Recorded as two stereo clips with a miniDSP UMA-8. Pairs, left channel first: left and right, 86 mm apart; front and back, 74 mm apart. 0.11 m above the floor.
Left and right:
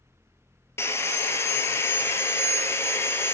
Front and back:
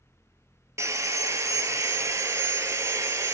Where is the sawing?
145° left, 0.8 m.